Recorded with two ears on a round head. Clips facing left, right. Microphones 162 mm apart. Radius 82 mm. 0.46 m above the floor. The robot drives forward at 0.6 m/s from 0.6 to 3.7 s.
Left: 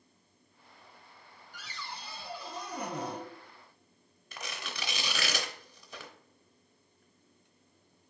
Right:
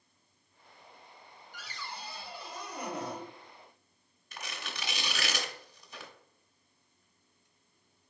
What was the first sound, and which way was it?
A cupboard door, 80° left.